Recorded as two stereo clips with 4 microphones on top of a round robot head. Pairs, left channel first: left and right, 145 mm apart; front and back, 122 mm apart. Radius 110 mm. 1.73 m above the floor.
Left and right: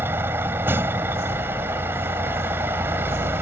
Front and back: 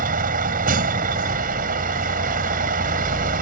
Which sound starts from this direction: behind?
A vehicle, at 0.0 s.